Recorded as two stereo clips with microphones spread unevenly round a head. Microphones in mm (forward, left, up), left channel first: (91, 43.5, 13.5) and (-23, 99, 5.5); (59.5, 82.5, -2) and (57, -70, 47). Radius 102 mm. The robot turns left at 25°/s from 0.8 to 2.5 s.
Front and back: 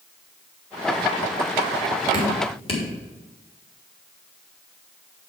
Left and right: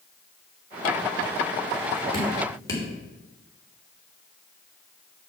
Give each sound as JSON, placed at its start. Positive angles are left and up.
{"t": 2.1, "sound": "dripping", "azimuth_deg": 30, "distance_m": 3.5}